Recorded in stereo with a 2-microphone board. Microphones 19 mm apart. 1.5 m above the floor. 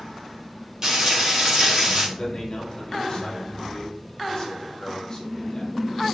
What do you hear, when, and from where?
0.8 s frying: 35° right (ahead or behind), 4.5 m
2.2 s a man speaking: 25° left (ahead or behind), 3.5 m